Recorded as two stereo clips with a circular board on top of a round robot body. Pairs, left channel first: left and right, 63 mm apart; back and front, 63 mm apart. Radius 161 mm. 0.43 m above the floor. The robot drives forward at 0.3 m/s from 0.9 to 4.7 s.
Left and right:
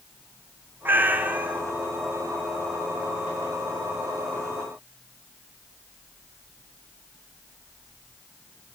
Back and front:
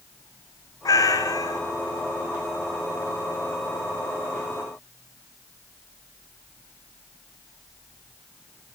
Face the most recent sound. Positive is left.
turn(degrees=-170)